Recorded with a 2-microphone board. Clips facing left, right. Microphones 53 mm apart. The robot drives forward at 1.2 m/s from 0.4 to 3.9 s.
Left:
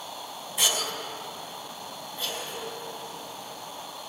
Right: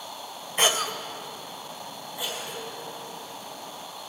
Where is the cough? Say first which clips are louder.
Right 4 dB; 40° right (ahead or behind), 0.7 m; by 4.1 s 5° right (ahead or behind), 4 m.